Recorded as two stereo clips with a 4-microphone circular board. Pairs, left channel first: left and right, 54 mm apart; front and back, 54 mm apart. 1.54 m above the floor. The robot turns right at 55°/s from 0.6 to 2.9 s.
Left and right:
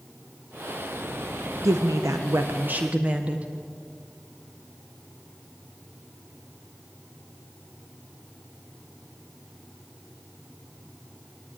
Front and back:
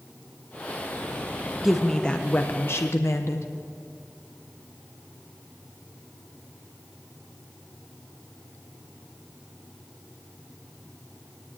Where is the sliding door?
I don't hear a sliding door.